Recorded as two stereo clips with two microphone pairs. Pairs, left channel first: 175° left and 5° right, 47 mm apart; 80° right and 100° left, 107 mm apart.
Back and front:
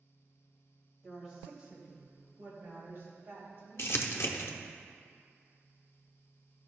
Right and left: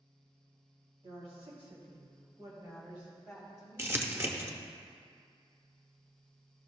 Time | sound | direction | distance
1.0 | a woman speaking | 85° left | 2 m
3.8 | crumpling | 165° left | 0.7 m